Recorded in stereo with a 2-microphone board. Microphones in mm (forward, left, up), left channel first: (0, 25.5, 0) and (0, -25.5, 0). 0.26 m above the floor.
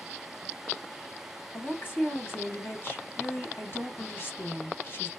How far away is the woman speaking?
About 2.0 m.